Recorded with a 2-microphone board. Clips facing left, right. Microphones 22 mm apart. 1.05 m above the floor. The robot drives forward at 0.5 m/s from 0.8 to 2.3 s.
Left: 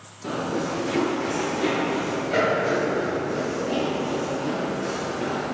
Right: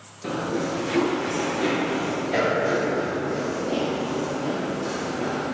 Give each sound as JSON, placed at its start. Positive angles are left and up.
{"t": 0.2, "sound": "running footsteps", "side_deg": -30, "distance_m": 1.1}